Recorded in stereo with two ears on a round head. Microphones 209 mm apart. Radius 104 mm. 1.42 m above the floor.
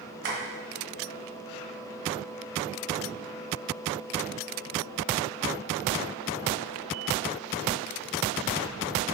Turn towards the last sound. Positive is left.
turn(degrees=-50)  # may be behind; listen again after turning